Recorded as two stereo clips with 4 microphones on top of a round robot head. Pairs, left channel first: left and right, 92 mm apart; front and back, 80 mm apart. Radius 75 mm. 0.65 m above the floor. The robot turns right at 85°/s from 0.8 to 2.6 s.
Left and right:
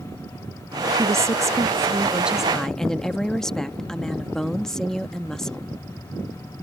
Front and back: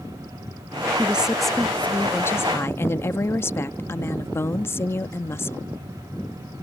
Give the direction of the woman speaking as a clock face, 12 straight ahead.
4 o'clock.